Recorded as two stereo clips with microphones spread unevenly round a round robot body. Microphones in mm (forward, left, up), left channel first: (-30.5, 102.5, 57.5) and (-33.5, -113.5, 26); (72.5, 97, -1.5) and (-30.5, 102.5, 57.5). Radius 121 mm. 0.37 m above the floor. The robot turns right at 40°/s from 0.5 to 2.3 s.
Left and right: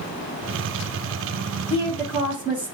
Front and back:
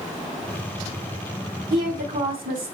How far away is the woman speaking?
About 3 m.